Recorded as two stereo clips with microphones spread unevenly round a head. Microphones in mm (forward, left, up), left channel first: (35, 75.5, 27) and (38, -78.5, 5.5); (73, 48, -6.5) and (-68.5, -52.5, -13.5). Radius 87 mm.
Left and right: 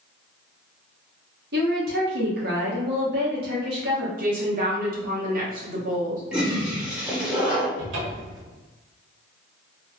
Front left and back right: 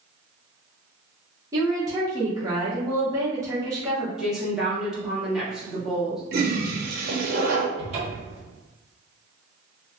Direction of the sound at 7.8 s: 90° right.